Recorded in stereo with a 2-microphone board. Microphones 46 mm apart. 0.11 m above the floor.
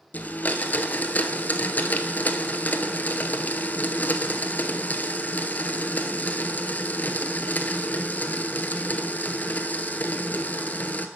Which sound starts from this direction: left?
A blender, at 0.1 s.